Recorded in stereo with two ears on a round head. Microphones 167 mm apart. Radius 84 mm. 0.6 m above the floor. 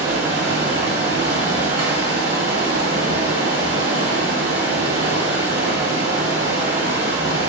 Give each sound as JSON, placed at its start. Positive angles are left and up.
{"t": 0.0, "sound": "running water", "side_deg": -65, "distance_m": 1.6}